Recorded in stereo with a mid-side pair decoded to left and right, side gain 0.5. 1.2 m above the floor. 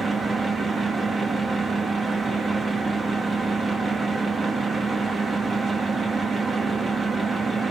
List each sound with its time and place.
0.0 s a fan: 30° right, 2 m